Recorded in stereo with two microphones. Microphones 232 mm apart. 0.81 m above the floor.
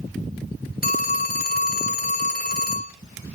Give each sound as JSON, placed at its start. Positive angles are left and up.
{"t": 0.8, "sound": "a phone ringing", "side_deg": 40, "distance_m": 1.2}